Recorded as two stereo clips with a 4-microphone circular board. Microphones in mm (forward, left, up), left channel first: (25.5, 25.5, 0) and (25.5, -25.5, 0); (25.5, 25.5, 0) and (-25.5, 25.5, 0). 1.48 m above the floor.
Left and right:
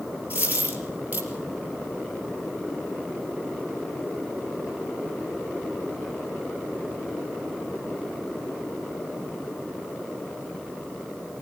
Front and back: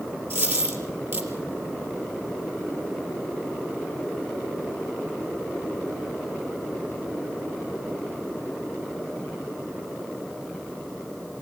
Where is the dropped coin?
145° right, 4 m.